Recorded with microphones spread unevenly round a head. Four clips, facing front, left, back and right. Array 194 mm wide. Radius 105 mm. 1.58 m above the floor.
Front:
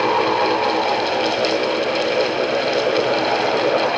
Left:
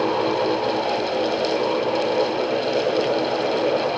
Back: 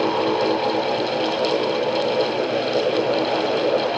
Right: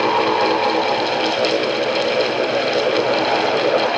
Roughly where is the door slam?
No door slam in this recording.